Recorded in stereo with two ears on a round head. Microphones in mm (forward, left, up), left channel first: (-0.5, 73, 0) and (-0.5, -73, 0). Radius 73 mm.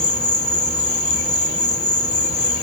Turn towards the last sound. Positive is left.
turn(degrees=25)  # may be behind; listen again after turning